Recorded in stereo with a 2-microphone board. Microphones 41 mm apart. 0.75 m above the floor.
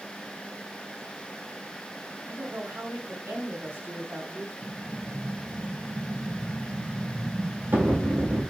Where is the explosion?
70° right (ahead or behind), 3.5 m.